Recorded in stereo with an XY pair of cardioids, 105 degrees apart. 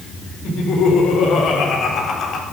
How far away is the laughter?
About 4.5 m.